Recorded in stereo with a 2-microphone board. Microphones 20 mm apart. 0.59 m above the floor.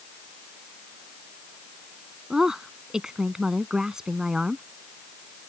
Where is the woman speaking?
25° right (ahead or behind).